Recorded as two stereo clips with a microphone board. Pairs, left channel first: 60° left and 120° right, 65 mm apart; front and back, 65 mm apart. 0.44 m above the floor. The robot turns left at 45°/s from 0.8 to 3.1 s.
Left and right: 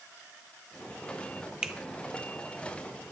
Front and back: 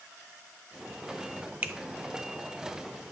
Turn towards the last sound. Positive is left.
turn(degrees=110)